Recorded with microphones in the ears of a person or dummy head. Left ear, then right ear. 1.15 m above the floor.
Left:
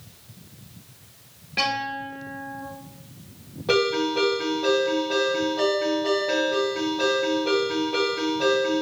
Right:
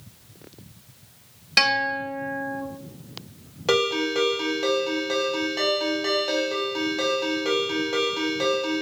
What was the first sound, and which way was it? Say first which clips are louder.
A guitar: right 5 dB; 55° right (ahead or behind).